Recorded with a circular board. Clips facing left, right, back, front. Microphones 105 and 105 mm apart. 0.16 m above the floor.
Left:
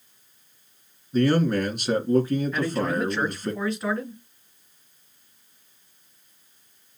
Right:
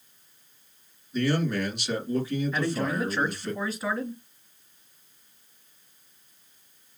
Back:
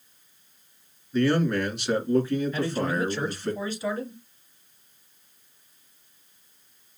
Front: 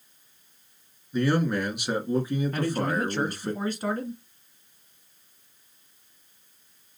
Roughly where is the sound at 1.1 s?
Left.